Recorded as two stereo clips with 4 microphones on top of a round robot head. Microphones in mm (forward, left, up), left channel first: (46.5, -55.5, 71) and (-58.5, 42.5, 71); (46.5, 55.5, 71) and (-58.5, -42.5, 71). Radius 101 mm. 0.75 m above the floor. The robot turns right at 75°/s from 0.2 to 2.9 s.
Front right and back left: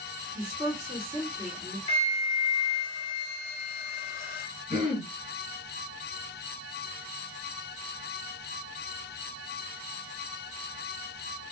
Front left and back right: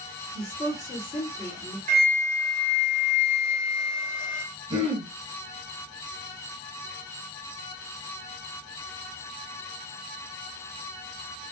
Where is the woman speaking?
20° left, 1.8 m; by 1.8 s 125° left, 1.8 m.